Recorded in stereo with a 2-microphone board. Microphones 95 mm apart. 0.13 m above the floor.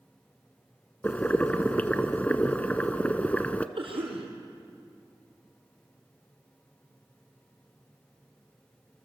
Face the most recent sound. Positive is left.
turn(degrees=-70)  # may be behind; listen again after turning